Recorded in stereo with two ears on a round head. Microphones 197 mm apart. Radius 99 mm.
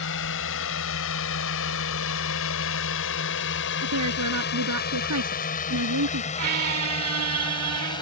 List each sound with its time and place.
0.0 s a drone: 65° left (ahead or behind); by 8.0 s 20° left (ahead or behind)
3.8 s a woman speaking: 80° right
6.4 s a squeak: 75° right (ahead or behind)